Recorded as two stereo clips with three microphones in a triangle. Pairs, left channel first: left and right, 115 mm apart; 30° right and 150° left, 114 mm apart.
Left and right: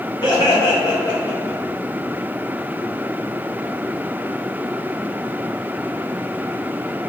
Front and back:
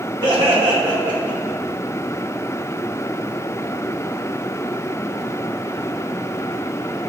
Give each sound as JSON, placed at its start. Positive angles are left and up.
{"t": 0.2, "sound": "laughter", "azimuth_deg": 125, "distance_m": 1.9}